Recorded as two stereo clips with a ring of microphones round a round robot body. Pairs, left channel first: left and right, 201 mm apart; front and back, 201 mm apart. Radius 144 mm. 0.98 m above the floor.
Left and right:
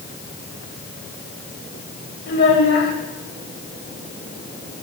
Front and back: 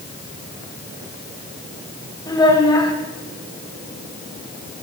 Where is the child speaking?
70° left, 4 m.